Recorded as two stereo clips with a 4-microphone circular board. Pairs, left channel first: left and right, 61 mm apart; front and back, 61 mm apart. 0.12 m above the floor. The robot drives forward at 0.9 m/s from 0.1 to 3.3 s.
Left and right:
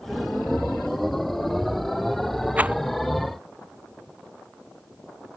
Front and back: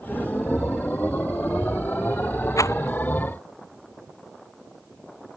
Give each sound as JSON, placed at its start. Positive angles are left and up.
{"t": 2.6, "sound": "a rattle", "azimuth_deg": -25}